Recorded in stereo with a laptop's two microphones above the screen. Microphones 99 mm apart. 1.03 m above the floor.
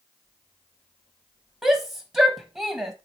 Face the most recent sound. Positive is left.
turn(degrees=-15)  # may be behind; listen again after turning